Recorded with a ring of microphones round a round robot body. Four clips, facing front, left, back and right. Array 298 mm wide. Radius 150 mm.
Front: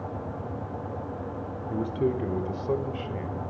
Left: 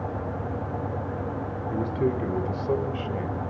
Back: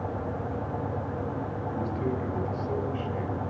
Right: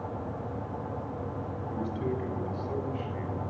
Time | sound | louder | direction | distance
1.7 | a man speaking | left 7 dB, front 5 dB | 45° left | 3 m